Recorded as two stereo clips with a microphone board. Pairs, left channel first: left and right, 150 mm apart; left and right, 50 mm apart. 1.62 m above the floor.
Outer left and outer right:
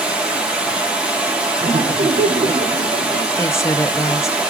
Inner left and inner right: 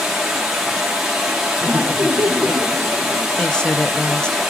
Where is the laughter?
70° right (ahead or behind), 0.6 m.